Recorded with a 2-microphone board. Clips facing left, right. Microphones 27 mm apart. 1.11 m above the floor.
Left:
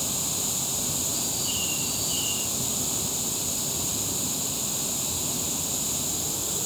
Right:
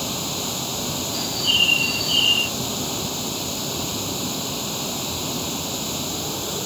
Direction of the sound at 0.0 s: 25° right (ahead or behind).